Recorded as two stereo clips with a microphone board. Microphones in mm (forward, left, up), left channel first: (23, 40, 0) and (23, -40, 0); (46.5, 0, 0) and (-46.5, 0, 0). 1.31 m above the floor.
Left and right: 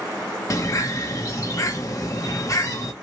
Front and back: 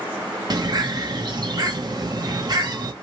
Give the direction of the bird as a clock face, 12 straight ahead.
7 o'clock.